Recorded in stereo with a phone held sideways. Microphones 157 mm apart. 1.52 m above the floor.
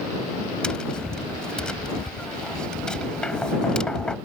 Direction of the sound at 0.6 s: 5° left (ahead or behind).